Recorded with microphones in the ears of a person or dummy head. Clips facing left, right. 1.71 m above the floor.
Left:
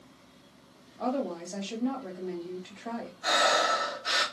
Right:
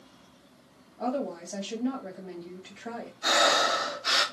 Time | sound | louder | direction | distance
1.0 | a woman speaking | even | 10° right (ahead or behind) | 1.6 m
3.2 | breathing | right 1 dB | 70° right (ahead or behind) | 1.3 m